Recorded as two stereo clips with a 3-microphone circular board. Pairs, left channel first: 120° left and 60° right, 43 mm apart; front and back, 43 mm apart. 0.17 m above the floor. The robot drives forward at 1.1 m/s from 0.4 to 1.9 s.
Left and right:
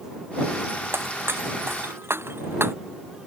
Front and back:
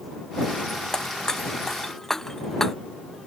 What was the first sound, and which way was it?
Breaking glass, 75° right.